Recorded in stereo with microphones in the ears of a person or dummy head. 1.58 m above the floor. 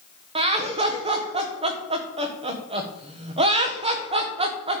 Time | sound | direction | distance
0.3 | laughter | 30° right (ahead or behind) | 1.5 m